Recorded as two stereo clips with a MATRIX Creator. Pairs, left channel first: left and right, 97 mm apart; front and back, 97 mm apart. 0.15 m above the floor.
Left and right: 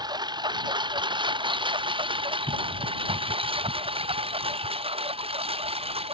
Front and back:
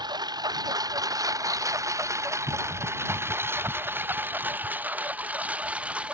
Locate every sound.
0.0 s a lawn mower: 135° right; by 6.2 s 100° right